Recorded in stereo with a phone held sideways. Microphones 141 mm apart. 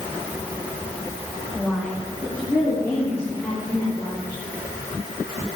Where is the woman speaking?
Centre (ahead or behind), 2.5 m; by 4.4 s 25° left (ahead or behind), 6 m.